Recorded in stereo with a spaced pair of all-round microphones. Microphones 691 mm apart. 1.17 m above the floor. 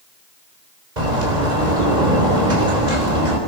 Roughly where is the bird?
Right.